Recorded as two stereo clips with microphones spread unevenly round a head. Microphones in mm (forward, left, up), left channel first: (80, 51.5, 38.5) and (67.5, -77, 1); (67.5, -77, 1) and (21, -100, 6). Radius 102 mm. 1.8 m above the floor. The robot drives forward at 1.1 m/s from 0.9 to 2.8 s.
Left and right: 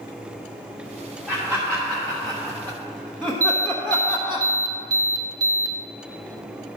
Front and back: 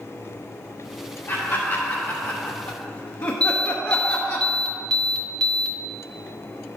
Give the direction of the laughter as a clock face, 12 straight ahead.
12 o'clock.